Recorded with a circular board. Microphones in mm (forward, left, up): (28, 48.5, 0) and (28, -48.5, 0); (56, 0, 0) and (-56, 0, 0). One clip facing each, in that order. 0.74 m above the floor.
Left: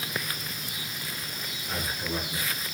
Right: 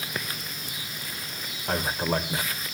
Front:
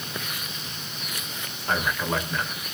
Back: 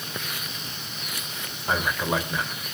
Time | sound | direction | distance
1.7 | a man speaking | 105° right | 3 m